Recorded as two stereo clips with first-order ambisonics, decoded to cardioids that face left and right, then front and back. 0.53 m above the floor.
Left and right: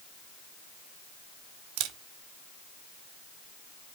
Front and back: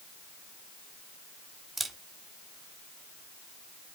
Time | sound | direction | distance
1.8 | a camera shutter | 105° right | 0.9 m